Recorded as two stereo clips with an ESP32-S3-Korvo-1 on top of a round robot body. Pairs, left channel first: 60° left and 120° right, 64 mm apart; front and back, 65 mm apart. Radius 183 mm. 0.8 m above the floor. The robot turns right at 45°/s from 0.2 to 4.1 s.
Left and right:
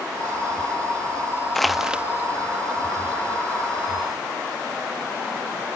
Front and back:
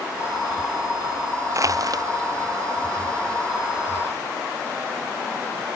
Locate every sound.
1.6 s crushing: 145° left; by 2.0 s 165° left